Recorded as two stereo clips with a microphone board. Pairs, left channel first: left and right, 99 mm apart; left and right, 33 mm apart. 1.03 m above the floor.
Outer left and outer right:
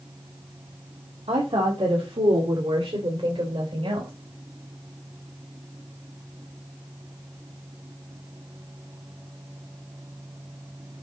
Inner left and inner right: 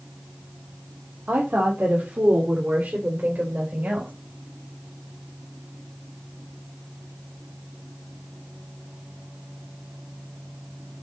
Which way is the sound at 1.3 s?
85° right.